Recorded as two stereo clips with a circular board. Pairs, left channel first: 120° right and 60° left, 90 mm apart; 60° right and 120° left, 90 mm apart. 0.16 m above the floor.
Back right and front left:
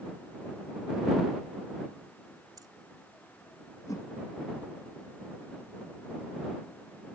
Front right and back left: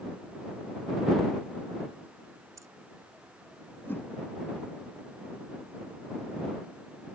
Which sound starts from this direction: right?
A whoosh, at 3.9 s.